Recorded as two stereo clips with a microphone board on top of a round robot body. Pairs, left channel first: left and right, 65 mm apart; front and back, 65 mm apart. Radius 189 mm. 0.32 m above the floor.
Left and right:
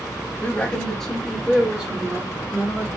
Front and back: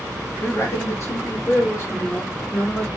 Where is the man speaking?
35° left, 1.8 m; by 2.9 s 45° right, 2.5 m.